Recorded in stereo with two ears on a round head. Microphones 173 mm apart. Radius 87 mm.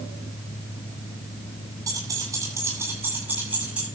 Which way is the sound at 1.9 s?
20° right (ahead or behind).